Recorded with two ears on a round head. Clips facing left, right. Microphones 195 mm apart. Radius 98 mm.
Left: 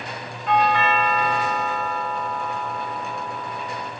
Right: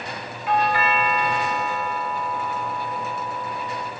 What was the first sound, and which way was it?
A doorbell, 5° right (ahead or behind).